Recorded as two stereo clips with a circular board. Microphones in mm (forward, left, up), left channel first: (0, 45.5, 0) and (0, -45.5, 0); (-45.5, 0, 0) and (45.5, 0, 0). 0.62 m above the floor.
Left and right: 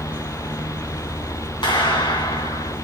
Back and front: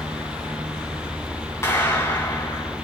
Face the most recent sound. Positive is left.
turn(degrees=120)